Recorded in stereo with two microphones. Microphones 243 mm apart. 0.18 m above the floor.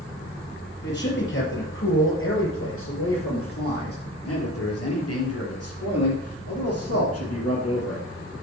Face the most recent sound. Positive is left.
turn(degrees=65)  # may be behind; listen again after turning